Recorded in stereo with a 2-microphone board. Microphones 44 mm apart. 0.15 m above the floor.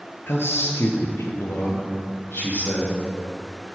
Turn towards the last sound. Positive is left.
turn(degrees=60)  # may be behind; listen again after turning